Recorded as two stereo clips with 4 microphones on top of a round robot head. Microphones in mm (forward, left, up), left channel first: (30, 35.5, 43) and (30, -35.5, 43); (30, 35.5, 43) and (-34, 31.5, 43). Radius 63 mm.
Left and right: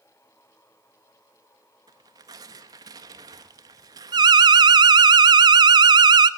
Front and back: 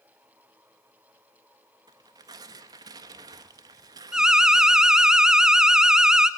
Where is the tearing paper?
135° right, 0.9 m.